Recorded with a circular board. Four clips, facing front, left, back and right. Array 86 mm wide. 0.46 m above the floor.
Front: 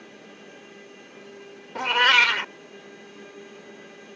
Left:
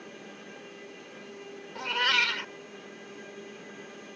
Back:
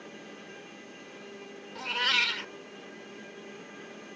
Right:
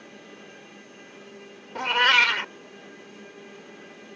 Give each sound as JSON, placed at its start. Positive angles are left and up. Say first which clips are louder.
{"t": 1.8, "sound": "a cat meowing", "louder": "right 7 dB, front 11 dB", "azimuth_deg": -35}